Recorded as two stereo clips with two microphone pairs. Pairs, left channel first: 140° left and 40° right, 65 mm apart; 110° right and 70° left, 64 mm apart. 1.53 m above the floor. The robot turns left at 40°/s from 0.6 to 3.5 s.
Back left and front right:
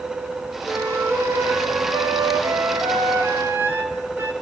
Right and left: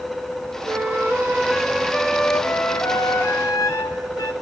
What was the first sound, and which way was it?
A flute, 25° left.